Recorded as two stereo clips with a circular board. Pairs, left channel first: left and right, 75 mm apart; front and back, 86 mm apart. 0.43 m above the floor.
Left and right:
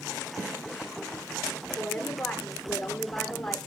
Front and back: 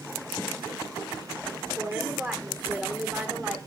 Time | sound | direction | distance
1.8 | a woman speaking | 150° left | 1.0 m